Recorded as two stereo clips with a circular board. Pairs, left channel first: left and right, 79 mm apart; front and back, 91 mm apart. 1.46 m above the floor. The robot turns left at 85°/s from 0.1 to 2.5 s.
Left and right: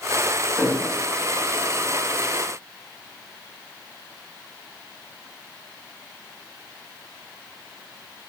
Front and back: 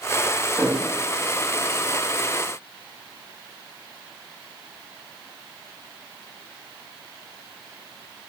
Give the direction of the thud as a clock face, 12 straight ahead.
3 o'clock.